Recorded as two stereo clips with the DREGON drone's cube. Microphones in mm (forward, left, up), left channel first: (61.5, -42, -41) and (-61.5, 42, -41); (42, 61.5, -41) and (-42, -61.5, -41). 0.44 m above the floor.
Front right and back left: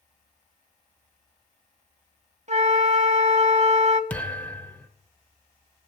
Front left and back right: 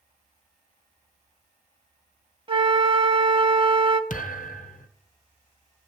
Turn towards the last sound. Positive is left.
turn(degrees=45)